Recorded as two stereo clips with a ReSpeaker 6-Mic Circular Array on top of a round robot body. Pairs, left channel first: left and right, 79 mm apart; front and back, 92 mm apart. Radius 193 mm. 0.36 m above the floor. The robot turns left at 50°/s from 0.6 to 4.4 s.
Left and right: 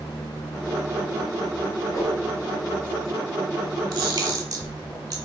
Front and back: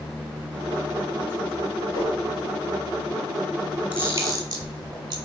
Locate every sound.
1.9 s a whoosh: 45° left, 3 m; by 2.1 s 35° left, 3 m
3.9 s a camera shutter: 110° right, 2.0 m; by 5.2 s 135° right, 2.0 m